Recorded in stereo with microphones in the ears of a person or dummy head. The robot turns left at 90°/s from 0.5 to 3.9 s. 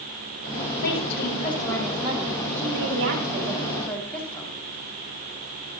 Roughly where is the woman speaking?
Left.